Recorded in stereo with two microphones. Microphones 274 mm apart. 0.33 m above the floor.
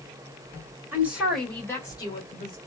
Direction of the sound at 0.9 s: 5° right (ahead or behind).